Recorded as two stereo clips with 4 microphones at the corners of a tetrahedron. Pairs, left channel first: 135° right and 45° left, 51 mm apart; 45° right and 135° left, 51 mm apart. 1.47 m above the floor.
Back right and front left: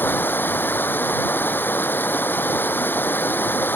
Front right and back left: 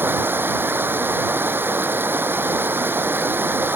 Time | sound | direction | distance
0.0 | running water | 175° left | ?